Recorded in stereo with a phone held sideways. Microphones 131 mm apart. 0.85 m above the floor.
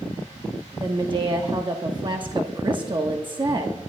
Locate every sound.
0.8 s a woman speaking: 35° right (ahead or behind), 1.2 m